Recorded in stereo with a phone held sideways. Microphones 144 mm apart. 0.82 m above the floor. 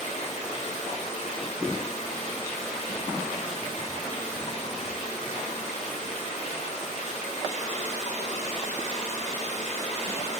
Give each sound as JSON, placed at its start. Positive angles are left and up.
{"t": 0.0, "sound": "running water", "side_deg": 50, "distance_m": 2.5}